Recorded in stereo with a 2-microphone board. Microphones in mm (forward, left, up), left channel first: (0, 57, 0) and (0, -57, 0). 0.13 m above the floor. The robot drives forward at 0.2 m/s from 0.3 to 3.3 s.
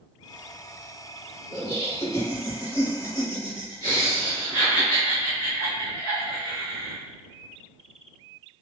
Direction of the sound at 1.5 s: 30° left (ahead or behind).